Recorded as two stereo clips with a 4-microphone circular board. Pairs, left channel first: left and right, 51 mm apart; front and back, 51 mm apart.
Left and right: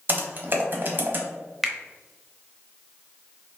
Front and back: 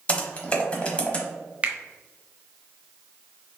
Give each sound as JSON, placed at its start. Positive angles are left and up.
{"t": 0.1, "sound": "typing on a keyboard", "azimuth_deg": -55, "distance_m": 0.9}
{"t": 1.6, "sound": "a finger snap", "azimuth_deg": -175, "distance_m": 0.8}